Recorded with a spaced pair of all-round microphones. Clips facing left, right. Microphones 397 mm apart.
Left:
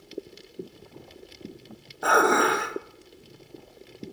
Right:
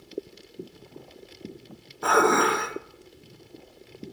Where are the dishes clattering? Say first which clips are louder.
Right 1 dB; 15° right (ahead or behind), 0.7 m.